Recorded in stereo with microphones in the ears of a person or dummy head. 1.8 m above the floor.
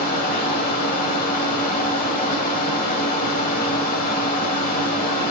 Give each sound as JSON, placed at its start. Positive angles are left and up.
{"t": 0.0, "sound": "a fan", "side_deg": 50, "distance_m": 1.7}